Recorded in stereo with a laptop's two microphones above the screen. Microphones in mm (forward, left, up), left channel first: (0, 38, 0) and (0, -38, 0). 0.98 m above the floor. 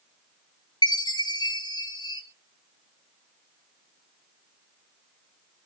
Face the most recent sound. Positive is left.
turn(degrees=75)  # may be behind; listen again after turning